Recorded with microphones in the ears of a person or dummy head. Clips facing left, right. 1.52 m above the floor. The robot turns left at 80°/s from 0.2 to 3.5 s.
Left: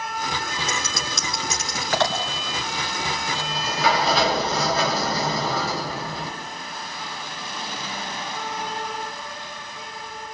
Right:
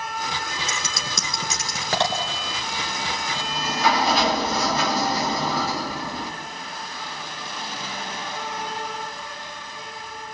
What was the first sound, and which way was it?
Scissors, 50° right (ahead or behind).